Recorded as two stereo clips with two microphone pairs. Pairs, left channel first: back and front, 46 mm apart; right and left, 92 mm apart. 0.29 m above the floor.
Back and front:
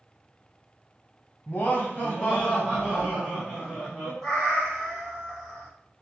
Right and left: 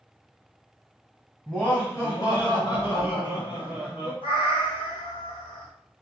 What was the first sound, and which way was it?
Laughter, 160° right.